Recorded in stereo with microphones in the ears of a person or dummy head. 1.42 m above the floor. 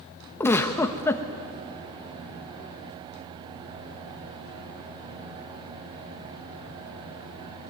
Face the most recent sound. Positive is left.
turn(degrees=5)  # may be behind; listen again after turning